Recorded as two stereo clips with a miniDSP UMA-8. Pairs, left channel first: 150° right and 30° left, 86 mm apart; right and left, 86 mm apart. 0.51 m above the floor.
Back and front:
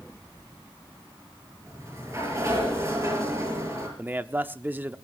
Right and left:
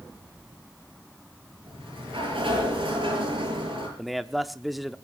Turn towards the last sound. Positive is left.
turn(degrees=5)